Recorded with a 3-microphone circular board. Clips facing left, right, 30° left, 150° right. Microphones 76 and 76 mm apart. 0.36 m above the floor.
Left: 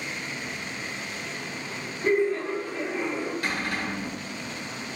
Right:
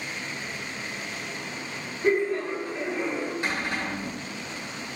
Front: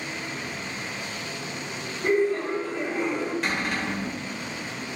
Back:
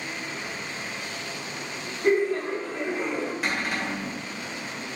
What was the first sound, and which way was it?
Laughter, 5° right.